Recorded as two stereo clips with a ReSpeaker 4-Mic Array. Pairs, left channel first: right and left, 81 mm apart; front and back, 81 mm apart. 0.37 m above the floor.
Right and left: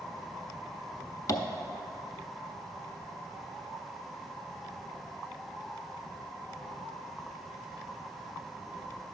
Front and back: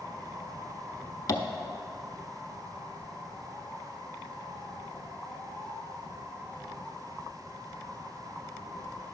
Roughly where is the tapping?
Ahead right.